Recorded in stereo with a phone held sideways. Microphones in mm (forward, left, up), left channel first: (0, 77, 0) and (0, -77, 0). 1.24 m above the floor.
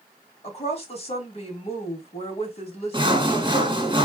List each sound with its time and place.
0.4 s a woman speaking: 45° left (ahead or behind), 2.5 m
2.9 s sawing: 30° right (ahead or behind), 1.2 m